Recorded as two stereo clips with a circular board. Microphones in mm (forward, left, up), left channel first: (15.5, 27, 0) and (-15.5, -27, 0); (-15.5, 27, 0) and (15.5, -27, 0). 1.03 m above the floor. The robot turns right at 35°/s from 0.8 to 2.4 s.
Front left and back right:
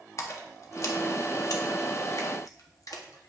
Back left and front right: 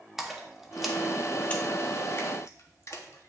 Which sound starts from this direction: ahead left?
A splash, at 0.2 s.